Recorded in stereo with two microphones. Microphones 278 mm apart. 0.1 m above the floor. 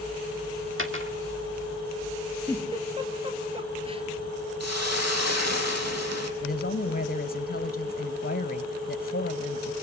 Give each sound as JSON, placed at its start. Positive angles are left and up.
{"t": 0.8, "sound": "a dropped coin", "side_deg": -45, "distance_m": 1.6}
{"t": 2.5, "sound": "a giggle", "side_deg": -20, "distance_m": 2.5}
{"t": 4.6, "sound": "a hiss", "side_deg": -70, "distance_m": 3.0}
{"t": 6.4, "sound": "a woman speaking", "side_deg": 35, "distance_m": 1.4}